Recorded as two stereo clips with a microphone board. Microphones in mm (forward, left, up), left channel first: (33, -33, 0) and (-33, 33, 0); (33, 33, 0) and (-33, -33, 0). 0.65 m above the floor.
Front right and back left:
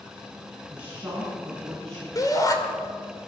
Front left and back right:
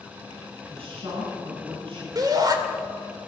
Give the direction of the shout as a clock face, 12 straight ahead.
3 o'clock.